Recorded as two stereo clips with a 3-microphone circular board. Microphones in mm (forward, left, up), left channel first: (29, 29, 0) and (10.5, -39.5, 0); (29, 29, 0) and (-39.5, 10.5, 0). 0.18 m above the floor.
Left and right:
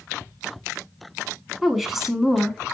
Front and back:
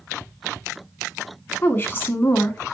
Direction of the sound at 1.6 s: 20° right.